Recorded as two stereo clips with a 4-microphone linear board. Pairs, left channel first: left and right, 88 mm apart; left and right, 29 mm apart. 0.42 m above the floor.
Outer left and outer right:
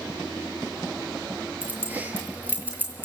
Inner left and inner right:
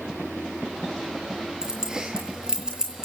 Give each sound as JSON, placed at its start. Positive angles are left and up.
{"t": 1.6, "sound": "keys jangling", "side_deg": -20, "distance_m": 6.0}